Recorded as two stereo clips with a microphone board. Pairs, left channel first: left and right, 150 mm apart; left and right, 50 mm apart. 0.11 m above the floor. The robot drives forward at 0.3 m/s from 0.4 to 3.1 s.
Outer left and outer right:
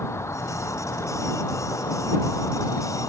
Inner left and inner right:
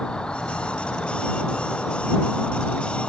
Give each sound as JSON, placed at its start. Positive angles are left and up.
{"t": 0.0, "sound": "an insect", "side_deg": 20}